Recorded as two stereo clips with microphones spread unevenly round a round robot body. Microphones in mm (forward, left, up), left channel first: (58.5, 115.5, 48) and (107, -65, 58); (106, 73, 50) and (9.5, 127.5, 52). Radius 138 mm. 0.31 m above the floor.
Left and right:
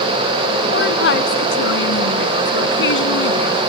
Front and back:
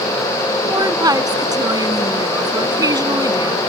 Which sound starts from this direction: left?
A woman speaking, at 0.7 s.